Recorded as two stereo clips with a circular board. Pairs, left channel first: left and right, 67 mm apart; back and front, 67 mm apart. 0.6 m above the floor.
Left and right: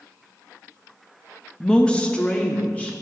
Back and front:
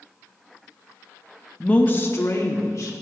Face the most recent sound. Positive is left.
turn(degrees=155)